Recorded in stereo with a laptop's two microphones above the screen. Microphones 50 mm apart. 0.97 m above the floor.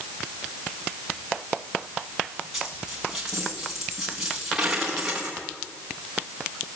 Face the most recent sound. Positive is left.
turn(degrees=-5)  # may be behind; listen again after turning